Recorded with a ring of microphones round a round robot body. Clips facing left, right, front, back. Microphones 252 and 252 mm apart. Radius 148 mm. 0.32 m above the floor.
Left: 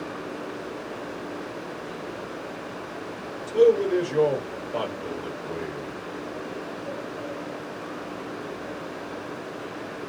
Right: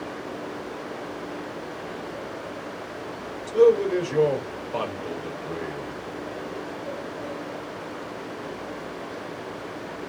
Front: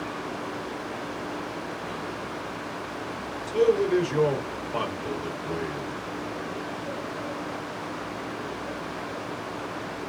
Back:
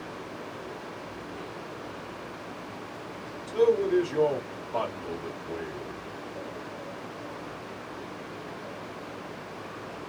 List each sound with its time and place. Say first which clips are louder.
3.5 s a man speaking: right 1 dB, front 1 dB; 5° right, 1.3 m